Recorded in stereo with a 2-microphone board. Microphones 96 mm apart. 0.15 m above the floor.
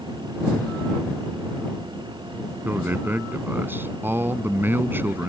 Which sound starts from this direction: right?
A man speaking, at 2.6 s.